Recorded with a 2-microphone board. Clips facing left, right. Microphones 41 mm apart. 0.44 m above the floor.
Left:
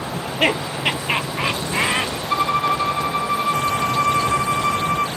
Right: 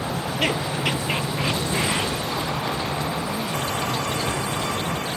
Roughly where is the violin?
Left.